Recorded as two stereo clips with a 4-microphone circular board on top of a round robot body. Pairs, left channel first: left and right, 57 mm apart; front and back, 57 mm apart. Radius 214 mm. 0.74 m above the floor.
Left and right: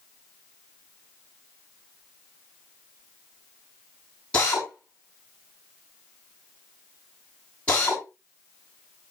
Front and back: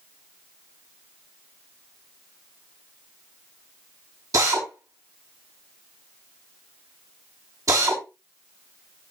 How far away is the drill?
About 7 m.